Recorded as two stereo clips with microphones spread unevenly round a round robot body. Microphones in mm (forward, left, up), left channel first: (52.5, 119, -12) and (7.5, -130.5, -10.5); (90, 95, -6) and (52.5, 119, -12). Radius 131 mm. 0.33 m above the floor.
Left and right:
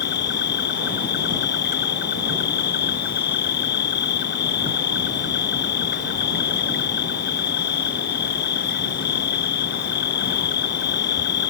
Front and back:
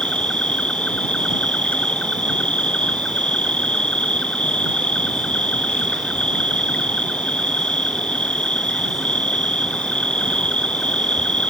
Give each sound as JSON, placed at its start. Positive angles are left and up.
{"t": 0.0, "sound": "an insect", "azimuth_deg": 30}